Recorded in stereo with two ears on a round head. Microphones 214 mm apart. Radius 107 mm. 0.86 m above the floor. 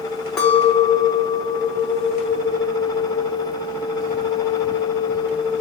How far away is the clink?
About 0.8 m.